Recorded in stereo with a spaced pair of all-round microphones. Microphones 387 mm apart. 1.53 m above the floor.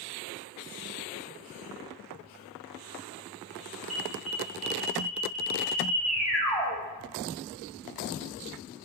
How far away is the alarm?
About 1.4 m.